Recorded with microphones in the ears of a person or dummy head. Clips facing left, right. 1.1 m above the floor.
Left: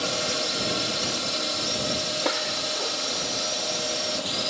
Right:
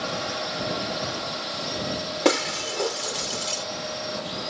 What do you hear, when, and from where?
0.0 s a drone: 40° left (ahead or behind)
2.2 s breaking glass: 55° right (ahead or behind)